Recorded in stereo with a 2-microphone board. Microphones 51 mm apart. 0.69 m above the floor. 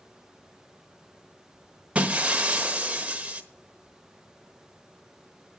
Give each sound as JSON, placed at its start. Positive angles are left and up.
{"t": 1.9, "sound": "breaking glass", "side_deg": -25, "distance_m": 1.1}